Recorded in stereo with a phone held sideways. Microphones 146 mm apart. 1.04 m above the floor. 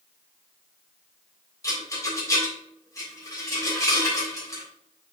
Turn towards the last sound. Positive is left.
turn(degrees=20)  # may be behind; listen again after turning